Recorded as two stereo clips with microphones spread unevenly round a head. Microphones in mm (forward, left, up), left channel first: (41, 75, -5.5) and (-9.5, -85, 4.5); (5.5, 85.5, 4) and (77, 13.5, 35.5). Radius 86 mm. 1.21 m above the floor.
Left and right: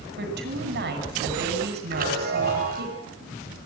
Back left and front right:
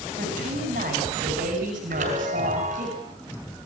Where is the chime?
65° right, 6 m.